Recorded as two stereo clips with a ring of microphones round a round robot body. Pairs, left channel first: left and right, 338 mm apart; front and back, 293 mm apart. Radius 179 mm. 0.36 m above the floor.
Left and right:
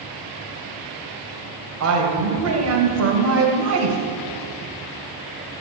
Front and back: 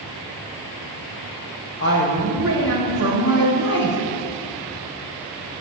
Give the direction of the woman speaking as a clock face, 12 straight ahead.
2 o'clock.